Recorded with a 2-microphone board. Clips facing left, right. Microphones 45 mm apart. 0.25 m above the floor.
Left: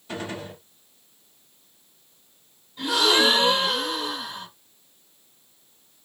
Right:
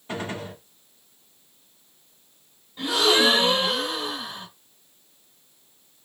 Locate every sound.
0.1 s a gunshot: 35° right (ahead or behind), 1.5 m
2.8 s a gasp: 20° right (ahead or behind), 1.5 m